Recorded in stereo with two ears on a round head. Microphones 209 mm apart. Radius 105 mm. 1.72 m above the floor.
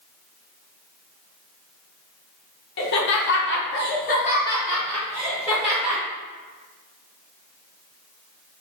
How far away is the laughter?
About 0.9 m.